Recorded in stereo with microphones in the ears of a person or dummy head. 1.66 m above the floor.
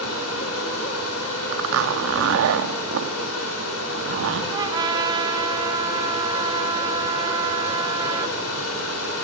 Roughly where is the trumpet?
Right.